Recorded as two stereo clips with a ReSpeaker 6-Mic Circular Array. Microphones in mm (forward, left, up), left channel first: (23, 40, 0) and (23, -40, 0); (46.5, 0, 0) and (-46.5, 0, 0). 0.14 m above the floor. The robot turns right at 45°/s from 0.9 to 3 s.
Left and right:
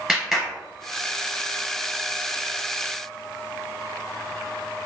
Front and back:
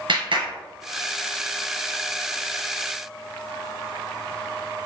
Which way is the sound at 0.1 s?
170° right.